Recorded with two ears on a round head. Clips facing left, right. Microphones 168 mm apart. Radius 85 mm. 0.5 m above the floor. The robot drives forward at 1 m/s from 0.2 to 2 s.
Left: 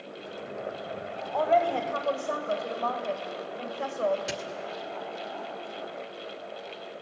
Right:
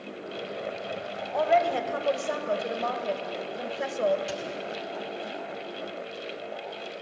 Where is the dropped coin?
25° left (ahead or behind), 1.9 m.